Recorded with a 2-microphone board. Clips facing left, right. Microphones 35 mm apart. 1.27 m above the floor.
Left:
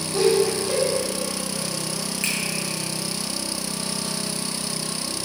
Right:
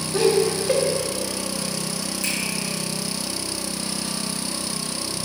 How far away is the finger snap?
About 0.9 m.